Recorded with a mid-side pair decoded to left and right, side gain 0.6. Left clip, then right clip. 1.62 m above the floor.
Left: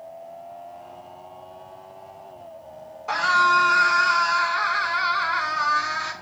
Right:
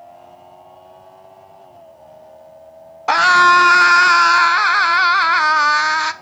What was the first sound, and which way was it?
A scream, 60° right.